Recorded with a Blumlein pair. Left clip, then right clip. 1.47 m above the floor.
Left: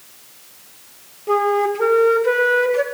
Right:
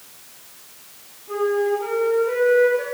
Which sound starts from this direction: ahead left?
A flute, at 1.3 s.